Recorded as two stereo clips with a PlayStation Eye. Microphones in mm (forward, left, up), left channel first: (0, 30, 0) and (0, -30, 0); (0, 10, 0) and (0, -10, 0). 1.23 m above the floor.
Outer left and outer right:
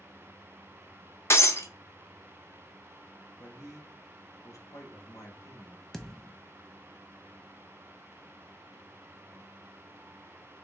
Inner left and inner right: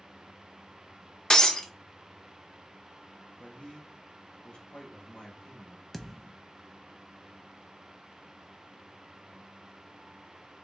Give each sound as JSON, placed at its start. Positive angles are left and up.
{"t": 1.3, "sound": "breaking glass", "side_deg": 50, "distance_m": 0.8}
{"t": 3.4, "sound": "a man speaking", "side_deg": 55, "distance_m": 1.6}
{"t": 5.9, "sound": "a thud", "side_deg": 10, "distance_m": 0.6}